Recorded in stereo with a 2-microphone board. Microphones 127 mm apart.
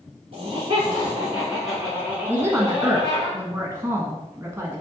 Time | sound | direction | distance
0.3 | laughter | 45° right (ahead or behind) | 1.6 m
2.3 | a woman speaking | 20° right (ahead or behind) | 1.1 m